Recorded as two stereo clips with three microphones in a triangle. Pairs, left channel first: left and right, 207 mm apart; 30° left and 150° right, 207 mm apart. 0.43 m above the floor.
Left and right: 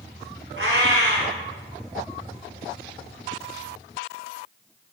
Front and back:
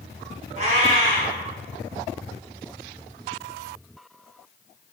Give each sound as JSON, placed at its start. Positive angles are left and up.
{"t": 0.6, "sound": "a cat meowing", "azimuth_deg": -95, "distance_m": 1.8}